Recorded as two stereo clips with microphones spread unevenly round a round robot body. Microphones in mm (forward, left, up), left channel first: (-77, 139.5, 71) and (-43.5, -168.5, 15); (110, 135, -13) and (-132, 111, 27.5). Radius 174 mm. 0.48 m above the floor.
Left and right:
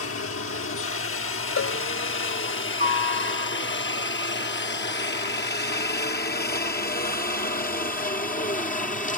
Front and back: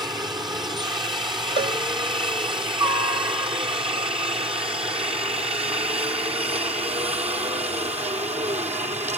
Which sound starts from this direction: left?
A helicopter, at 0.0 s.